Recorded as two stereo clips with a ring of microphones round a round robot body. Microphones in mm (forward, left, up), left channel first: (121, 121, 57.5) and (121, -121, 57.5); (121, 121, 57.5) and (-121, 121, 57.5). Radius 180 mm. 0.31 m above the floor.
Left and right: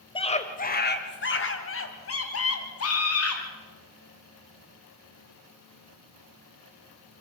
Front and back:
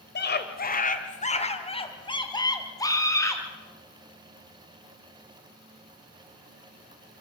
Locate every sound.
0.1 s a scream: 25° left, 1.8 m; by 3.4 s 80° left, 4.5 m